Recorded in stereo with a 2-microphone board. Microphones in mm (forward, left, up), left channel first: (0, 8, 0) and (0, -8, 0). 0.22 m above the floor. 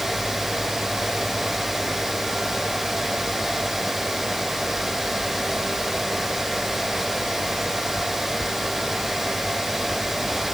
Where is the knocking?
No knocking in this recording.